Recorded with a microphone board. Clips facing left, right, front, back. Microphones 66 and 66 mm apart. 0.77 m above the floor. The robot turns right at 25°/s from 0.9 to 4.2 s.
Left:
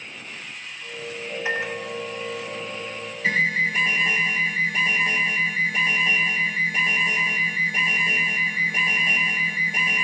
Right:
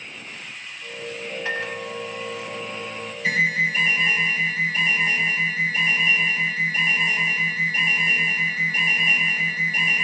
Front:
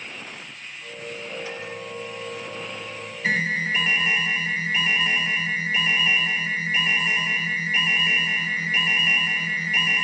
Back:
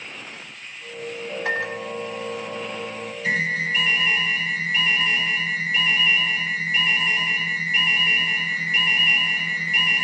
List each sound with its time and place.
1.4 s a microwave: 160° left, 0.9 m; by 3.1 s 155° right, 0.9 m
3.2 s an alarm: 50° left, 2.5 m; by 10.1 s 75° left, 2.5 m